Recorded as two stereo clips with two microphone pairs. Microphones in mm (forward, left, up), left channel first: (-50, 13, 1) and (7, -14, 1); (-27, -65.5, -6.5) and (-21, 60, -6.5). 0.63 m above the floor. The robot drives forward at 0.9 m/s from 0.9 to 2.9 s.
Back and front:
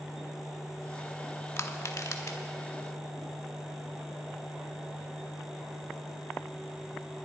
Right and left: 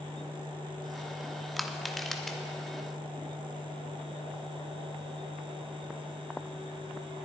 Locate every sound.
1.6 s crushing: straight behind, 0.8 m